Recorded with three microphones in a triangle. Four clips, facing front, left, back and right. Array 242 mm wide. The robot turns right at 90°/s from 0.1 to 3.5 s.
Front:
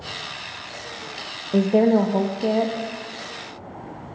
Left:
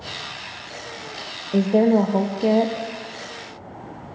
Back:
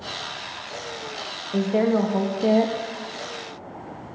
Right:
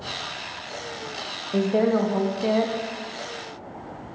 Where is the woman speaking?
15° left, 0.5 m; by 2.9 s 135° left, 0.5 m.